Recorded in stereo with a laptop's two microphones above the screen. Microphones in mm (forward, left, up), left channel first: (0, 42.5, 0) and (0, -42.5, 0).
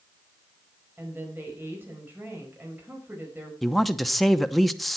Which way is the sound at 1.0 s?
25° right (ahead or behind).